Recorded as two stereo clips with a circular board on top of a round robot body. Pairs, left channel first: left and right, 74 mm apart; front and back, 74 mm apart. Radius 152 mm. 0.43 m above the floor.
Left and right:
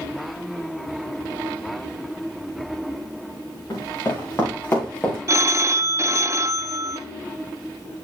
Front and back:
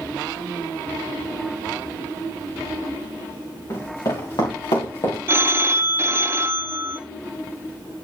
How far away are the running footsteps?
About 4.5 m.